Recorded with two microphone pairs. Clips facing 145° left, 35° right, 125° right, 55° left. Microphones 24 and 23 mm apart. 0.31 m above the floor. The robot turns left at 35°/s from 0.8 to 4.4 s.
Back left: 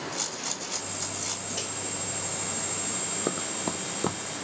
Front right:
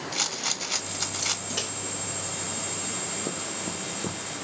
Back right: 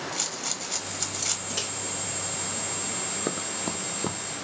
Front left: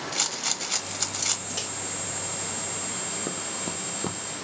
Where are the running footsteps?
175° left, 0.6 m; by 4.2 s 145° left, 0.6 m.